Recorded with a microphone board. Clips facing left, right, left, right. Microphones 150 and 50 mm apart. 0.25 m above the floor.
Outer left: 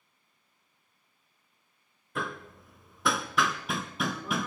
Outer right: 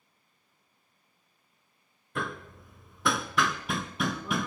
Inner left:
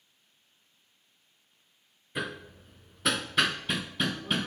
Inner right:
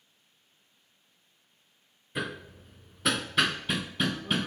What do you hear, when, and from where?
2.1 s hammering: centre (ahead or behind), 0.6 m